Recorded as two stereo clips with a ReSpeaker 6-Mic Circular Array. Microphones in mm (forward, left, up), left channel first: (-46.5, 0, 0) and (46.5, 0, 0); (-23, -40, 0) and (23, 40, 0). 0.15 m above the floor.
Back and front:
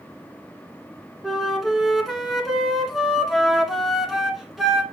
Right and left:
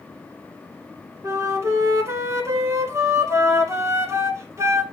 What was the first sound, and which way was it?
A flute, 90° left.